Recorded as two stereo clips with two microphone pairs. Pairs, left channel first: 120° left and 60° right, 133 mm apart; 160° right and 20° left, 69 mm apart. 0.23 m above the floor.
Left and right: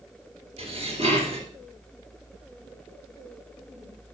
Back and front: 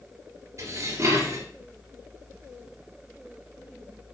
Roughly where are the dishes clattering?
Ahead right.